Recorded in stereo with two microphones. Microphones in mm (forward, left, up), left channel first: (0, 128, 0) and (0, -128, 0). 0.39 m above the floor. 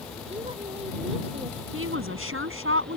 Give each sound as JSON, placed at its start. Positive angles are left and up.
{"t": 0.3, "sound": "a woman speaking", "side_deg": -25}
{"t": 1.7, "sound": "a woman speaking", "side_deg": -55}